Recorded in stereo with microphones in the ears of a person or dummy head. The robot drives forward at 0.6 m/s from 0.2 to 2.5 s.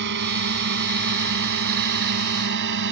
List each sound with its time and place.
0.0 s a drone: 65° right (ahead or behind); by 2.9 s 70° right (ahead or behind)